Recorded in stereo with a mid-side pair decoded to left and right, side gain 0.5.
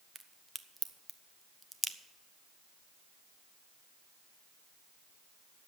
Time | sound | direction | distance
0.1 | a crack | 10° right | 0.9 m